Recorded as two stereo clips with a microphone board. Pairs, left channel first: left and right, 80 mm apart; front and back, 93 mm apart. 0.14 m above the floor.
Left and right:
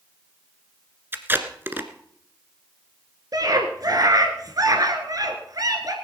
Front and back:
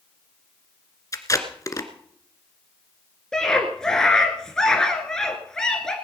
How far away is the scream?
About 1.7 m.